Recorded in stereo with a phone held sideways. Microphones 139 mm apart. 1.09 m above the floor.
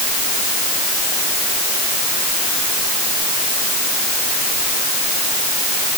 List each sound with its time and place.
Only background noise.